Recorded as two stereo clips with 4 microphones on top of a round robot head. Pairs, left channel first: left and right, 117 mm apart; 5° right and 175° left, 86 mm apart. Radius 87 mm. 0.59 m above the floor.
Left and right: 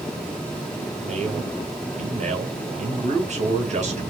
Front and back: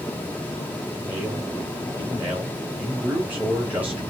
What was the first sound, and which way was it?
A man speaking, 110° right.